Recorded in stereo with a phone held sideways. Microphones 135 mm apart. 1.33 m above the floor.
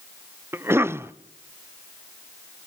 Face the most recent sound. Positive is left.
turn(degrees=-20)  # may be behind; listen again after turning